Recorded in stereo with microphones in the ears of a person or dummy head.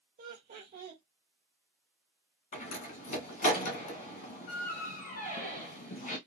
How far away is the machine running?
No machine running in this recording.